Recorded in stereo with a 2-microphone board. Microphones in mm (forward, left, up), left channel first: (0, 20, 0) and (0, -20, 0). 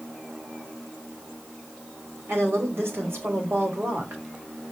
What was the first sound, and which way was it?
A woman speaking, 80° right.